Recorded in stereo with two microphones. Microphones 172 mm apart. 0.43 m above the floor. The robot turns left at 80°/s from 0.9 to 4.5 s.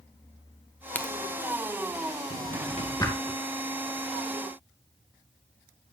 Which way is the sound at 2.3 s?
80° left.